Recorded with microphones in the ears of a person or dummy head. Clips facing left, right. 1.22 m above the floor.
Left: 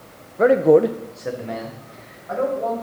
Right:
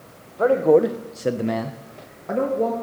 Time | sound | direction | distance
0.4 | a man speaking | 30° left (ahead or behind) | 1.0 m